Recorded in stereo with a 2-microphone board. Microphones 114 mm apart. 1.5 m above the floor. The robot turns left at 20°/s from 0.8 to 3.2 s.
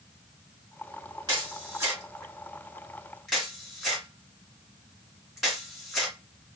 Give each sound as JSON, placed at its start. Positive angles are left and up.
{"t": 1.3, "sound": "a camera shutter", "side_deg": -40, "distance_m": 1.7}